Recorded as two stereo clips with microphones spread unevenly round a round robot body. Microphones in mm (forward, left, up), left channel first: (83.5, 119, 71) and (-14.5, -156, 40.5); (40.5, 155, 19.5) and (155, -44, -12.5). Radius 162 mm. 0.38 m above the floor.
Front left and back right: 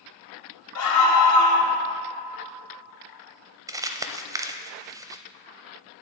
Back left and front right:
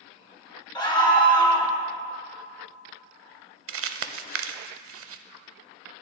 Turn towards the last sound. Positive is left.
turn(degrees=-30)